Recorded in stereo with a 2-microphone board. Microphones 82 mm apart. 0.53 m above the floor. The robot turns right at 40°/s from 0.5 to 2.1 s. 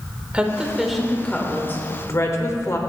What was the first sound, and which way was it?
A woman speaking, 15° right (ahead or behind).